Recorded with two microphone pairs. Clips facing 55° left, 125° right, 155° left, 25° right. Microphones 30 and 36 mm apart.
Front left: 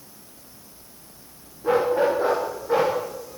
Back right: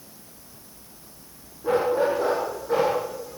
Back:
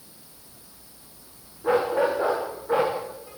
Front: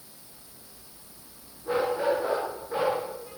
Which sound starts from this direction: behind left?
A dog barking, at 1.6 s.